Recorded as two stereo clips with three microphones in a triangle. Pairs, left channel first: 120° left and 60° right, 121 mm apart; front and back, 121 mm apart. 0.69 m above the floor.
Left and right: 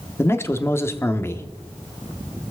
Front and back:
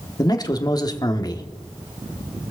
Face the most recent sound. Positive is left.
turn(degrees=50)